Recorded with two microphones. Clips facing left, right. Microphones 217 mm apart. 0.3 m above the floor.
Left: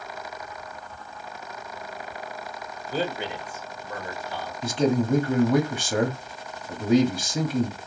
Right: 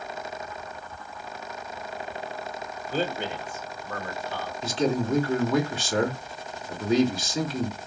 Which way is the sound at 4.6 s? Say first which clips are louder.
Left 3 dB; 55° left (ahead or behind).